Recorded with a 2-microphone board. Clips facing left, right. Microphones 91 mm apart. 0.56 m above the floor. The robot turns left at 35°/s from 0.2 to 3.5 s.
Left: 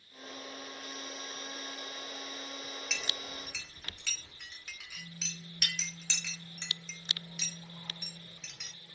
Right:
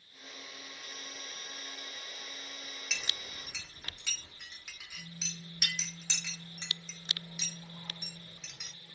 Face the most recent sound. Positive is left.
turn(degrees=-10)  # may be behind; listen again after turning